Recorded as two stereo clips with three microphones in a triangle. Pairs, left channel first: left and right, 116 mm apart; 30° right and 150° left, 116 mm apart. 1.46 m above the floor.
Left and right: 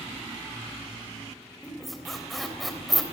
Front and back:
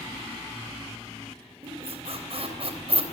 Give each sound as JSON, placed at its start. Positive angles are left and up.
{"t": 1.6, "sound": "a squeak", "azimuth_deg": 180, "distance_m": 3.0}